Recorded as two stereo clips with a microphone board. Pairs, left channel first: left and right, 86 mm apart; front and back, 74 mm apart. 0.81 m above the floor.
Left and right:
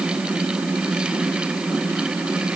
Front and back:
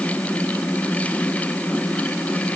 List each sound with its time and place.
Only background noise.